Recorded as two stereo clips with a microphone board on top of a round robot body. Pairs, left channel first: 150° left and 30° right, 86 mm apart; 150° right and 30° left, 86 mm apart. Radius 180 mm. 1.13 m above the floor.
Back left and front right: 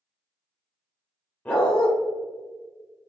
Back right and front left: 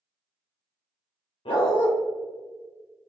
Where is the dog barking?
135° right, 1.5 m.